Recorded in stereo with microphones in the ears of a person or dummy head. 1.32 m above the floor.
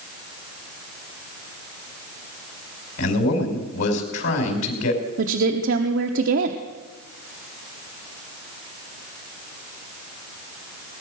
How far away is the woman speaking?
About 1.1 m.